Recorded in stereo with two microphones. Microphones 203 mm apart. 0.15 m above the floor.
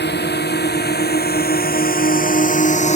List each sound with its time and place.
0.0 s a drone: 60° left (ahead or behind); by 3.0 s 35° left (ahead or behind)